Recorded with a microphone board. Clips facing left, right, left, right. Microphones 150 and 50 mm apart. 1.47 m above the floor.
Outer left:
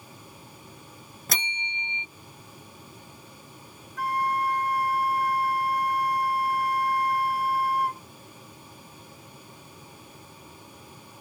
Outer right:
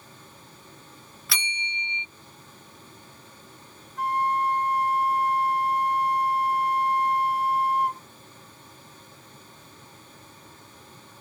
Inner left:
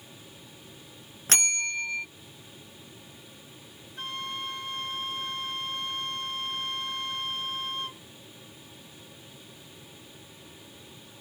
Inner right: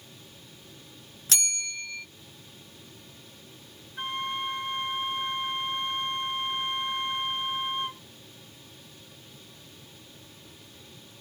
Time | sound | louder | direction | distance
1.3 | a bell | outer left 2 dB, inner left 5 dB | 45° left (ahead or behind) | ?
4.0 | a flute | outer right 2 dB, inner right 4 dB | 20° right (ahead or behind) | ?